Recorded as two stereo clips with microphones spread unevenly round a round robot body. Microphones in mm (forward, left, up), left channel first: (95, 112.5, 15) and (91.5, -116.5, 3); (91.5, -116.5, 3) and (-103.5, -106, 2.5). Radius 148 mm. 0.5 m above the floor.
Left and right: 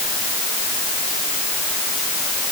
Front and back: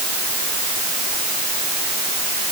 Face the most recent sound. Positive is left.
No sound to turn to.